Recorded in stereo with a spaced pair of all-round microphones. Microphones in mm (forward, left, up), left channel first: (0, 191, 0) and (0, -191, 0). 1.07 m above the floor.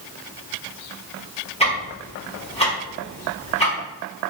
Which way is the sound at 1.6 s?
15° left (ahead or behind).